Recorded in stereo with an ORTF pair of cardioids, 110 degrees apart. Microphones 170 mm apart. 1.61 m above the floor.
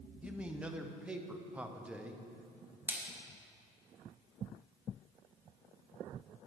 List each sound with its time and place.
0.2 s a man speaking: 10° right, 0.8 m
2.9 s a splash: 10° right, 1.4 m